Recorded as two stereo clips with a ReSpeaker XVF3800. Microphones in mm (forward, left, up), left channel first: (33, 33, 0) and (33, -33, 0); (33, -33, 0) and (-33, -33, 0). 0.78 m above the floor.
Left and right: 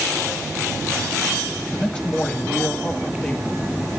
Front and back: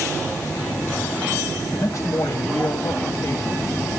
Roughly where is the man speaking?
Ahead.